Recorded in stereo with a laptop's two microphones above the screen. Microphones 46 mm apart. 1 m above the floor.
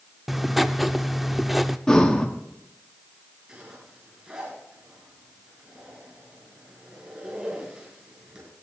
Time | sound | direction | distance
0.3 | writing | 5° right (ahead or behind) | 0.6 m
1.9 | breathing | 10° left (ahead or behind) | 1.6 m
3.5 | a zipper | 20° right (ahead or behind) | 6.5 m